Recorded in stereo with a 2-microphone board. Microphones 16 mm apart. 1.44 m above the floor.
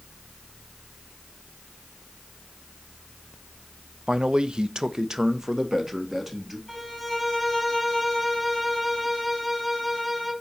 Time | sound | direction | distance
4.1 | a man speaking | 55° right (ahead or behind) | 0.6 m
6.7 | a violin | 5° left (ahead or behind) | 4.5 m